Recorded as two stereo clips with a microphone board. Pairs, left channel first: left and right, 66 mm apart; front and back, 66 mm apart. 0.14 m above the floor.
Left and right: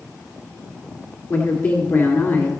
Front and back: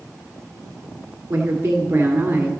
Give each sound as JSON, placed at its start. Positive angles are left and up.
{"t": 1.3, "sound": "a woman speaking", "azimuth_deg": 125, "distance_m": 1.7}